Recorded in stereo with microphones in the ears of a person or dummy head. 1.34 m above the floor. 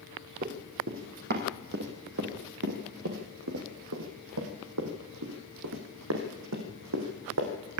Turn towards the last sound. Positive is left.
turn(degrees=-65)  # may be behind; listen again after turning